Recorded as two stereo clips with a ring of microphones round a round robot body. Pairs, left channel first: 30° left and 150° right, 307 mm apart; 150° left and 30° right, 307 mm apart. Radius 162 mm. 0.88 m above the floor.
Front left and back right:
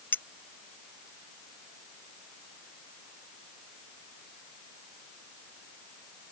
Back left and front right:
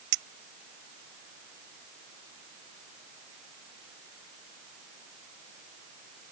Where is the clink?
55° right.